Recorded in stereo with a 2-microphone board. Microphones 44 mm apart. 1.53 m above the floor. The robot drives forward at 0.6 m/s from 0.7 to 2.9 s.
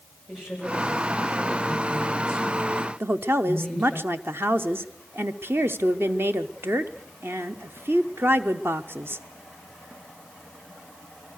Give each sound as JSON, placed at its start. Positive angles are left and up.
{"t": 0.3, "sound": "a woman speaking", "side_deg": -15, "distance_m": 8.0}
{"t": 3.0, "sound": "a woman speaking", "side_deg": -65, "distance_m": 0.7}